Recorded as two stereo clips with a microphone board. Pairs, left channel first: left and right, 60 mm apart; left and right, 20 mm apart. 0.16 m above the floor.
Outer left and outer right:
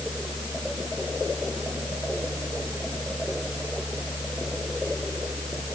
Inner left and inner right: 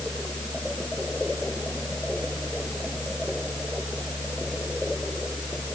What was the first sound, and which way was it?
Only background noise.